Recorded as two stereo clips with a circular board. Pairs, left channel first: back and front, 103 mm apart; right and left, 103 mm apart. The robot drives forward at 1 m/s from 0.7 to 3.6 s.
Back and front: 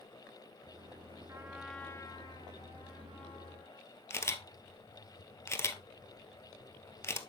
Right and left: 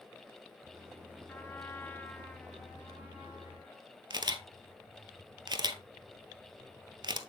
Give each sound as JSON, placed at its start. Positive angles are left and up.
{"t": 1.3, "sound": "a trumpet", "azimuth_deg": -30, "distance_m": 0.7}
{"t": 4.1, "sound": "a camera shutter", "azimuth_deg": 120, "distance_m": 0.7}